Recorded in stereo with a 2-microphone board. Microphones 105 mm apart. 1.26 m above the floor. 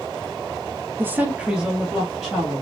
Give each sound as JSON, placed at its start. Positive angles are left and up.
{"t": 1.0, "sound": "a woman speaking", "side_deg": -20, "distance_m": 0.6}